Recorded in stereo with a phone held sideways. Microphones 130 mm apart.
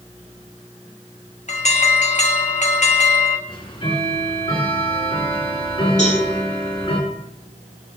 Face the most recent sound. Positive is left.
turn(degrees=70)  # may be behind; listen again after turning